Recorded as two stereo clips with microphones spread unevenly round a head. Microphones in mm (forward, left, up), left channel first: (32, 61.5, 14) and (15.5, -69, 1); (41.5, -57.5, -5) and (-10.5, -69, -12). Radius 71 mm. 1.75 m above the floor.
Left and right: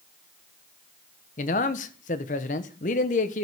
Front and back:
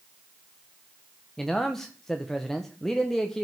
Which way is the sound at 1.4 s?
95° left.